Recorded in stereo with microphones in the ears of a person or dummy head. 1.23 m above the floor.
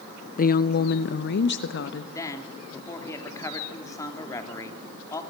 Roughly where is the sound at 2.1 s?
Centre.